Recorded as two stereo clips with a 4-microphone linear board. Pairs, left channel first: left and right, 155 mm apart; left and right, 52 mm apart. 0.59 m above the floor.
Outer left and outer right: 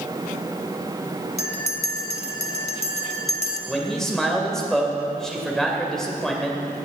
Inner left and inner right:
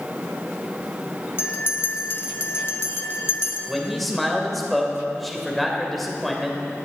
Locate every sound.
1.4 s a bell: 50° left (ahead or behind), 1.1 m
3.7 s a man speaking: 5° left (ahead or behind), 2 m